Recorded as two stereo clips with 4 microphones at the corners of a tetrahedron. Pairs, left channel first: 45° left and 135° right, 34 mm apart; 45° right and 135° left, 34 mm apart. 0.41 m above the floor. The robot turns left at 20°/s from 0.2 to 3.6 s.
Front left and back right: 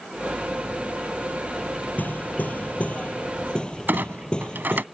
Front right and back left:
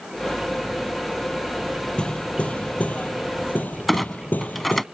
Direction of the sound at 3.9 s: 130° right.